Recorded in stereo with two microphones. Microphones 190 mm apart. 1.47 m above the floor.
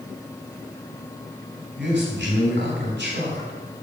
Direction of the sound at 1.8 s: 70° right (ahead or behind).